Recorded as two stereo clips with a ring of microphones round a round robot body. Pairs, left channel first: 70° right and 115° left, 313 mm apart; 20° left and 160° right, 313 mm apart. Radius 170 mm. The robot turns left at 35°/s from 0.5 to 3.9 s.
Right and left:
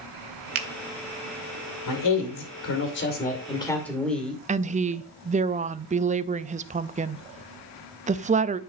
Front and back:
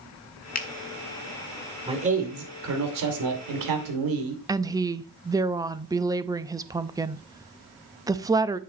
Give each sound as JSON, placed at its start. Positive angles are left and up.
{"t": 0.6, "sound": "a finger snap", "azimuth_deg": 85, "distance_m": 1.3}
{"t": 1.9, "sound": "a man speaking", "azimuth_deg": -85, "distance_m": 2.5}
{"t": 4.5, "sound": "a woman speaking", "azimuth_deg": 140, "distance_m": 0.6}